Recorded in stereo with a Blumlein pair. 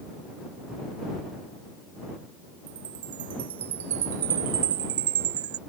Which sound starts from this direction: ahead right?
A chime, at 2.7 s.